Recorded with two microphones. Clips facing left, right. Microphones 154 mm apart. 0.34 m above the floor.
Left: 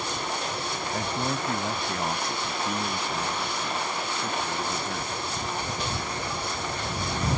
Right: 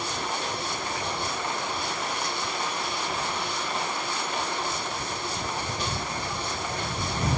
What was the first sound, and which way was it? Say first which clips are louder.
A man speaking: left 3 dB; 50° left (ahead or behind).